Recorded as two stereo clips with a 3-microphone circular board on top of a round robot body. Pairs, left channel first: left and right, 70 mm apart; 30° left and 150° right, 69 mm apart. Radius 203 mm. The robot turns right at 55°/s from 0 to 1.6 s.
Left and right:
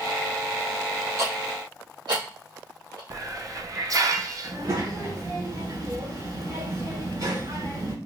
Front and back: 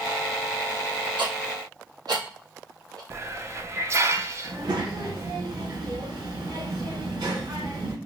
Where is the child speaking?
125° right, 3 m.